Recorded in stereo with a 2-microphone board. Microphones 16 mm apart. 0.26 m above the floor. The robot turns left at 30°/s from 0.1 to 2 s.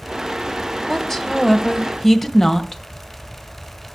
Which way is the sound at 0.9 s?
15° left (ahead or behind).